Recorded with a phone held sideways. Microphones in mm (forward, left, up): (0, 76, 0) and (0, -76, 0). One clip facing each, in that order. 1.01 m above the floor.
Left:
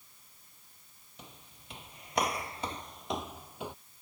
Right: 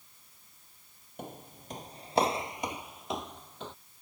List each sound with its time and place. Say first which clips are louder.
1.2 s footsteps: right 11 dB; 55° right (ahead or behind); by 3.8 s 15° left (ahead or behind)